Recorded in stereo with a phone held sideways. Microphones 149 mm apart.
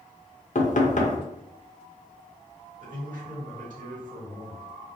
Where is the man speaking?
65° right (ahead or behind), 1.6 m.